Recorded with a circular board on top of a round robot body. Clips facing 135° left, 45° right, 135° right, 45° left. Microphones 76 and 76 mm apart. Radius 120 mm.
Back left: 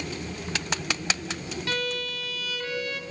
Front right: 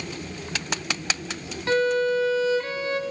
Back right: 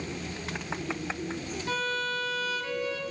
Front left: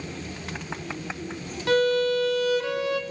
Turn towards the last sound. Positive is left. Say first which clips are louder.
# front right 12 dB, front left 11 dB
turn(degrees=20)